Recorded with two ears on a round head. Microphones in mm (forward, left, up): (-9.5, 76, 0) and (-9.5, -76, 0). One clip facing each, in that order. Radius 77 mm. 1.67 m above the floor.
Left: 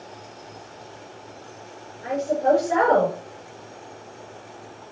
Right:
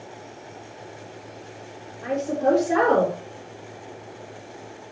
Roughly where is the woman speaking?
Right.